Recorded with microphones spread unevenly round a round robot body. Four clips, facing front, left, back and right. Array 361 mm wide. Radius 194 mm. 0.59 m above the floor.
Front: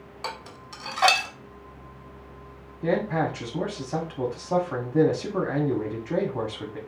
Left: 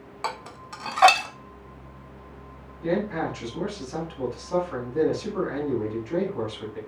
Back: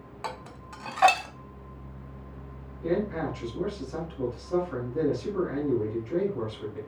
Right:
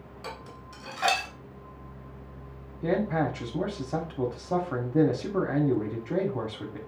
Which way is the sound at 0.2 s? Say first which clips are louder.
Left 9 dB, front 1 dB; 85° left.